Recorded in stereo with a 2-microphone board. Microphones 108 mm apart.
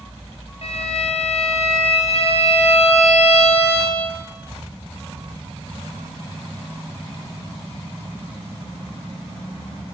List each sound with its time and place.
0.6 s a violin: 65° left (ahead or behind), 3.5 m